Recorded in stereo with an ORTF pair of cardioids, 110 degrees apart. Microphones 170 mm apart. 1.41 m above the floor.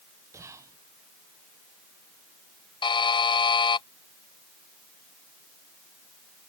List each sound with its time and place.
0.3 s whispering: 15° right
2.8 s a buzzer: 30° left